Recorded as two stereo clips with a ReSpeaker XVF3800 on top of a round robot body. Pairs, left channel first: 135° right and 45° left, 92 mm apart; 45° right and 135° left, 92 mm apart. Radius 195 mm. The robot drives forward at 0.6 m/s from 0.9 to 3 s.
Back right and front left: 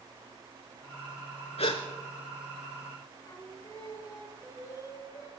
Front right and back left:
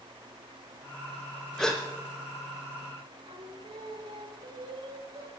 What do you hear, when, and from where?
1.6 s a gasp: 125° right, 0.6 m; by 1.8 s 140° right, 0.6 m
3.2 s singing: 165° left, 2 m